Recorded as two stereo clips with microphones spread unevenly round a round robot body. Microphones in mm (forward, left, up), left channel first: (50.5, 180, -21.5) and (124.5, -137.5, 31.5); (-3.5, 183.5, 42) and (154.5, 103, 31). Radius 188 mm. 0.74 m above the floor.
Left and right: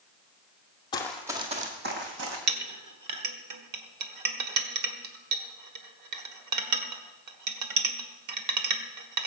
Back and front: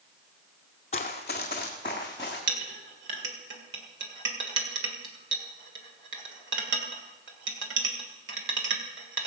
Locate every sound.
0.9 s running footsteps: 175° right, 0.9 m; by 2.4 s 125° right, 2 m
2.5 s a clink: 40° right, 1.7 m